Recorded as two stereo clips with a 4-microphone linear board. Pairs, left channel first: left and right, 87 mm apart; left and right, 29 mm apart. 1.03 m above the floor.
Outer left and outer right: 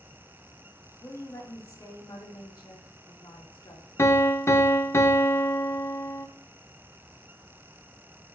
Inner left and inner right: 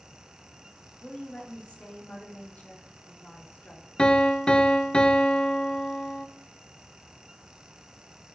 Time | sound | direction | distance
1.0 | a woman speaking | 35° left (ahead or behind) | 2 m
4.0 | a piano | 30° left (ahead or behind) | 0.6 m